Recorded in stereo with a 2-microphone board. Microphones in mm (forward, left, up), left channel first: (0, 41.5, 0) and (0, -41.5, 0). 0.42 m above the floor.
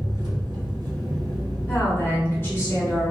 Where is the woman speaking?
30° left (ahead or behind), 1.7 m.